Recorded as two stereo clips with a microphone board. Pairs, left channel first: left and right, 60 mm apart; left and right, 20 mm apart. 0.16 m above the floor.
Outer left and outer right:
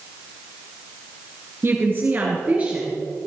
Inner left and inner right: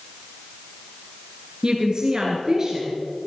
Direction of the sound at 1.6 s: 40° right (ahead or behind).